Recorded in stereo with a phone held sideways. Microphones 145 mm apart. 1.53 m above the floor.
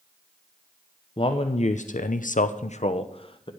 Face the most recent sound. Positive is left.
turn(degrees=35)  # may be behind; listen again after turning